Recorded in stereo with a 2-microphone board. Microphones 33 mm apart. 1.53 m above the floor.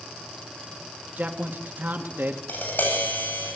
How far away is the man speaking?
About 2.5 m.